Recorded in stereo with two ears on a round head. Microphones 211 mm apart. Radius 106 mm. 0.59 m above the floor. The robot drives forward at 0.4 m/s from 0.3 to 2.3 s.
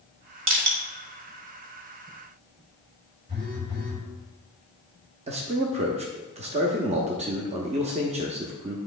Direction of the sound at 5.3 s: 30° right (ahead or behind).